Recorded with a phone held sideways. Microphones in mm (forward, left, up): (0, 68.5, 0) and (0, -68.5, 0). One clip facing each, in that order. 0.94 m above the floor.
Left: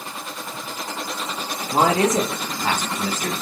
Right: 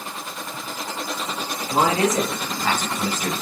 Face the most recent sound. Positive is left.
turn(degrees=-15)  # may be behind; listen again after turning